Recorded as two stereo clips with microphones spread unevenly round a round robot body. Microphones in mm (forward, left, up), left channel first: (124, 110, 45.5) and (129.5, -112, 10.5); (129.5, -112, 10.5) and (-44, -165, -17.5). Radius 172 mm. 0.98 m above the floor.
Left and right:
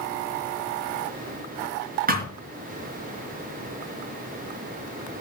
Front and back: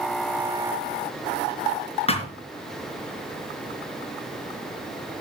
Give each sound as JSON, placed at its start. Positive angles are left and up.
{"t": 2.1, "sound": "a thud", "azimuth_deg": -35, "distance_m": 4.0}